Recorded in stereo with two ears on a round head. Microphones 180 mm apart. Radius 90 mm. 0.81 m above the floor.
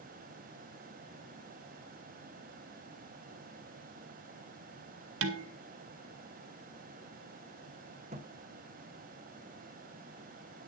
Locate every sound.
5.2 s dishes clattering: 70° right (ahead or behind), 1.3 m
8.1 s a thud: 35° right (ahead or behind), 1.3 m